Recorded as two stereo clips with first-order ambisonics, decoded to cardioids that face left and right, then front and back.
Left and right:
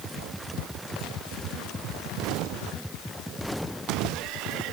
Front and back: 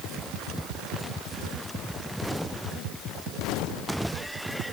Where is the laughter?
I don't hear laughter.